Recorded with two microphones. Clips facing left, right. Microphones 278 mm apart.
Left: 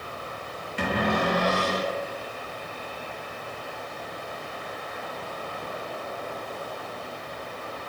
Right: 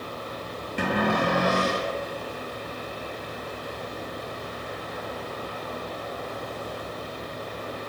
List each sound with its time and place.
0.8 s a cupboard door: 60° right (ahead or behind), 1.1 m